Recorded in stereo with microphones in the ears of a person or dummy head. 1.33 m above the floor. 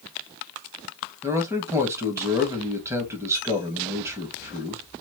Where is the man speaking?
20° right (ahead or behind), 1.4 m.